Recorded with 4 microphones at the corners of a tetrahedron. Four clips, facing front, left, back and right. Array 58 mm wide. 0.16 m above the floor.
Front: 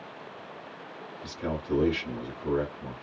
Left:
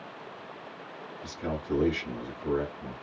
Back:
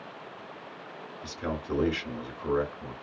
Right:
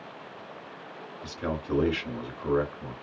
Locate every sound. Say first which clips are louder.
1.2 s a man speaking: right 1 dB, front 1 dB; 115° right, 2.5 m